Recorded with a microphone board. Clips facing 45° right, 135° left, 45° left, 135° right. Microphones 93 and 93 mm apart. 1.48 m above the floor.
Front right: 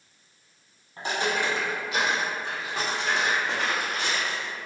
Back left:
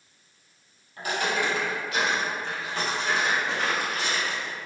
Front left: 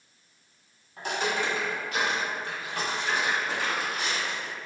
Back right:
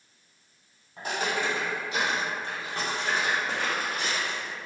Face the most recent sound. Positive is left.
turn(degrees=-145)